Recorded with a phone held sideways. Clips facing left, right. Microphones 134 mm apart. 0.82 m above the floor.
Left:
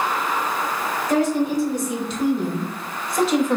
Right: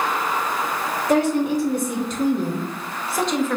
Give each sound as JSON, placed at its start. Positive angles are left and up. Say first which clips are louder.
{"t": 1.1, "sound": "a woman speaking", "louder": "right 1 dB", "side_deg": -65, "distance_m": 2.5}